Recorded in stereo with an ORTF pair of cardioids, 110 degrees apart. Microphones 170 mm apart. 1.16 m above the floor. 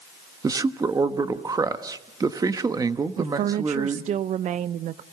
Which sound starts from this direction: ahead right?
A woman speaking, at 3.2 s.